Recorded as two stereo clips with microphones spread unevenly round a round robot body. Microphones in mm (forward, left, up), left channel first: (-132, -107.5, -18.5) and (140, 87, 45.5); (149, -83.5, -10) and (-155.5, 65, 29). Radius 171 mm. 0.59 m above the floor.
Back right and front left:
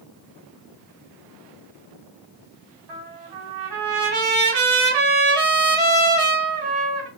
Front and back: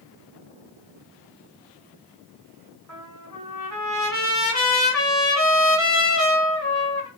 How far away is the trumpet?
About 1.3 m.